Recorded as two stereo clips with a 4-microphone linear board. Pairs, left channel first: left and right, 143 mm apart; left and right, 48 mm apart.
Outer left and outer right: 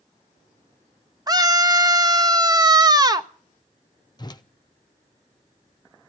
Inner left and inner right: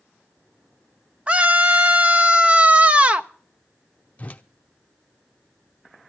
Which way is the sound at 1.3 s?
30° right (ahead or behind).